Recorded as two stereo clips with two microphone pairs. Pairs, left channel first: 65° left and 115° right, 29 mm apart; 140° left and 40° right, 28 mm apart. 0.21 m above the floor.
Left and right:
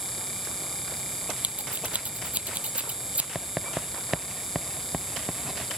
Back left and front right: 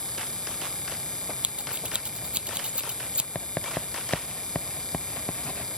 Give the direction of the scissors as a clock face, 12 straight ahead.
3 o'clock.